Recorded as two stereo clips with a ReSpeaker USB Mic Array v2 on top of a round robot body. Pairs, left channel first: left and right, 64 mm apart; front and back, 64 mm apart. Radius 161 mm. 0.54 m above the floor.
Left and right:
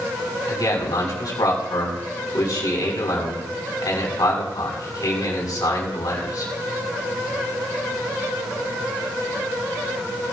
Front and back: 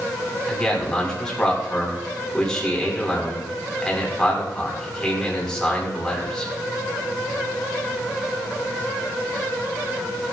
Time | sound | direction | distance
0.5 | a man speaking | 75° left | 5.5 m